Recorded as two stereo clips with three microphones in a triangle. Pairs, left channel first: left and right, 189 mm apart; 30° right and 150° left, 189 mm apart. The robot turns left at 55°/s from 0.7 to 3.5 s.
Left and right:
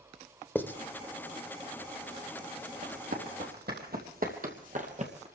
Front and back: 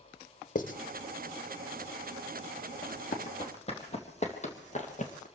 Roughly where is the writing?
Ahead.